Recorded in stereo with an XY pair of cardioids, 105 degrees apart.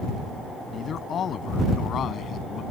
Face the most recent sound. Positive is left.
turn(degrees=60)